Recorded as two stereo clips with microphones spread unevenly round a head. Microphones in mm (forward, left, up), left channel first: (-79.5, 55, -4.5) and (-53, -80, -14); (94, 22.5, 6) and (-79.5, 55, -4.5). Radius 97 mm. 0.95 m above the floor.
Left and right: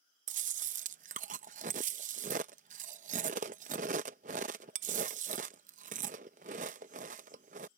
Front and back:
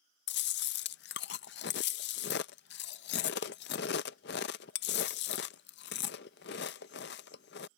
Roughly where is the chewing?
Ahead right.